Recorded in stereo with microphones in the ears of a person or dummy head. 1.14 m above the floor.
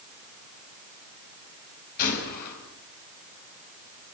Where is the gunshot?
50° left (ahead or behind), 6.5 m.